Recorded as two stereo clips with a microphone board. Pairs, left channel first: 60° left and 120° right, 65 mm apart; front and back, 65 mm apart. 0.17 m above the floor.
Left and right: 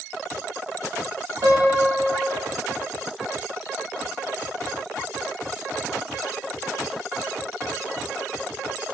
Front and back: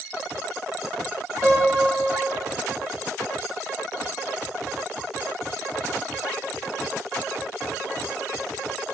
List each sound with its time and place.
1.4 s a piano: 105° right, 6 m